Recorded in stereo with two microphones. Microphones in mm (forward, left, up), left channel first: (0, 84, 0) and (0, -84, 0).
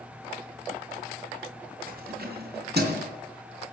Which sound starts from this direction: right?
Keys jangling, at 1.9 s.